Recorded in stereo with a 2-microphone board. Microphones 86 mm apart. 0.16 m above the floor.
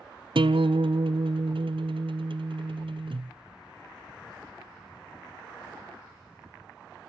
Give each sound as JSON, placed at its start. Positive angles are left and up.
{"t": 0.3, "sound": "a guitar", "side_deg": -80, "distance_m": 0.7}